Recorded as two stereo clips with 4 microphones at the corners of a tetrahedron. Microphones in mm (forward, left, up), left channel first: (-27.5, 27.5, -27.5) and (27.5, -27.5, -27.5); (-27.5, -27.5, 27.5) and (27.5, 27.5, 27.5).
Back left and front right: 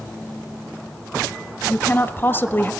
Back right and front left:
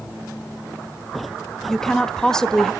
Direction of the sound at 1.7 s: 150° left.